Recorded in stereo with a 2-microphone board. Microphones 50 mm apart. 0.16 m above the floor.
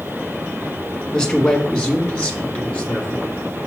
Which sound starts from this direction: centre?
A man speaking, at 1.1 s.